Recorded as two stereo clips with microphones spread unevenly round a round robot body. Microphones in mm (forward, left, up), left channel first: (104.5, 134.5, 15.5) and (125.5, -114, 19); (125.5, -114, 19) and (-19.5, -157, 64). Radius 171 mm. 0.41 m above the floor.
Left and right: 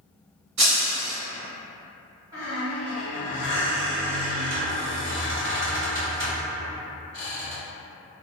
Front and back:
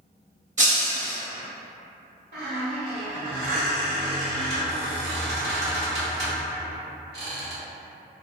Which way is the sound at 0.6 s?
120° right.